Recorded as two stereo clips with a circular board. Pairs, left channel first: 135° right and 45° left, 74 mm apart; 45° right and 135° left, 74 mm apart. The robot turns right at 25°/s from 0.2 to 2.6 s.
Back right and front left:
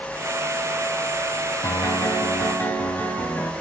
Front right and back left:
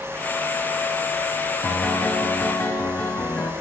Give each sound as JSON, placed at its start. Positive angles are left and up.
{"t": 1.6, "sound": "a piano", "azimuth_deg": -115, "distance_m": 2.0}